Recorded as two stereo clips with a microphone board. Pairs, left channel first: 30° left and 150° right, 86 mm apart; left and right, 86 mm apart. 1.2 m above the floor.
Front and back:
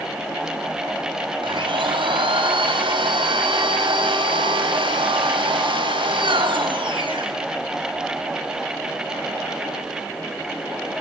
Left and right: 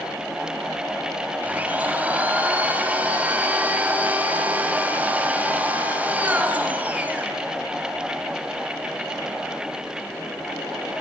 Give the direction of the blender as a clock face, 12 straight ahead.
5 o'clock.